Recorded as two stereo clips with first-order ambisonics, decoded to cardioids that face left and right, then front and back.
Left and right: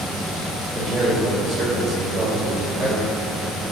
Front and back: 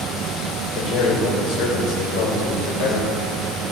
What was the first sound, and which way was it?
A man speaking, 15° right.